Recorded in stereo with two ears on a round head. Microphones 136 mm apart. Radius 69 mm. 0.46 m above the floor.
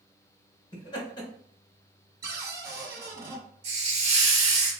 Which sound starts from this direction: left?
Laughter, at 0.7 s.